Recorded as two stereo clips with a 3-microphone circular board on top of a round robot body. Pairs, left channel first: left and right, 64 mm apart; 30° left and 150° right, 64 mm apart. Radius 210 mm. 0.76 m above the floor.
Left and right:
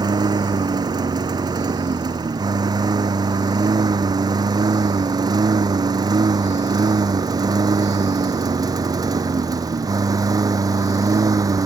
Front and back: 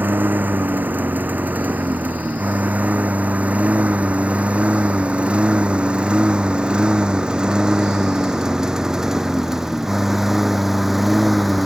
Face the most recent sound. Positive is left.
turn(degrees=-60)